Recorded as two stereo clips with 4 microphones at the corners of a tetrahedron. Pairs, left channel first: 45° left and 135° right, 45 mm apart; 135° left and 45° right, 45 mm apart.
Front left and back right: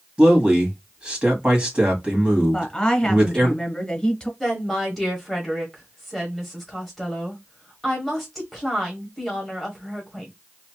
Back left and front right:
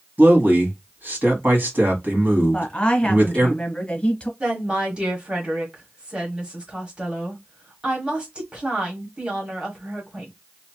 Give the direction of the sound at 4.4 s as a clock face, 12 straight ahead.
1 o'clock.